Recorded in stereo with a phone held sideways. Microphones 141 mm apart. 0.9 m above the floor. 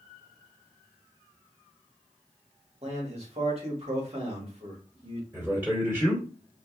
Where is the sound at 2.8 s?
45° right (ahead or behind), 1.5 m.